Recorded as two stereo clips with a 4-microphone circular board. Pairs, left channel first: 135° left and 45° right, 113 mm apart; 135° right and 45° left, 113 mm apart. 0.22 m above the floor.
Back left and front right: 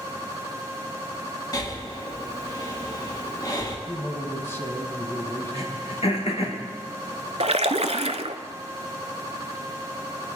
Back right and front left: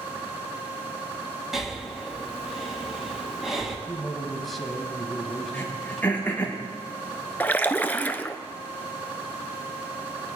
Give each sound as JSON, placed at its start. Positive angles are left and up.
{"t": 1.5, "sound": "breathing", "azimuth_deg": 130, "distance_m": 1.6}
{"t": 3.9, "sound": "a man speaking", "azimuth_deg": 140, "distance_m": 1.1}
{"t": 5.5, "sound": "throat clearing", "azimuth_deg": 155, "distance_m": 2.5}
{"t": 7.4, "sound": "a splash", "azimuth_deg": -60, "distance_m": 0.5}